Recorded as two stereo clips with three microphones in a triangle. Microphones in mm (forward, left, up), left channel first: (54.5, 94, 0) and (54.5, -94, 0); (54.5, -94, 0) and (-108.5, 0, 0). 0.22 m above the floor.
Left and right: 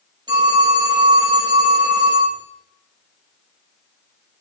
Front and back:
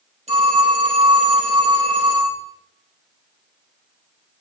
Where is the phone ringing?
155° right, 3.5 m.